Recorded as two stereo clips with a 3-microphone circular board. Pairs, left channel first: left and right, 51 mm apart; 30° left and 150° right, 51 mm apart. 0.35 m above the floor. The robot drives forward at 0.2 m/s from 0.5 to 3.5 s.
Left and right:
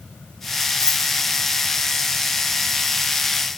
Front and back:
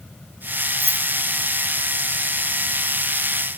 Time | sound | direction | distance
0.8 | keys jangling | 120° left | 6.5 m